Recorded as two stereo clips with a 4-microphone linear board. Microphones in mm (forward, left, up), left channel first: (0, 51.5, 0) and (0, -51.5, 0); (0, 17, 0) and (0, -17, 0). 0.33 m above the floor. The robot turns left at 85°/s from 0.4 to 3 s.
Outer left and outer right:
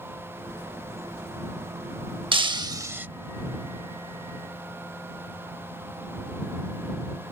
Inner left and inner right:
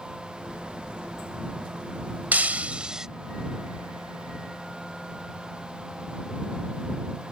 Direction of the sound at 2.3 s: 95° right.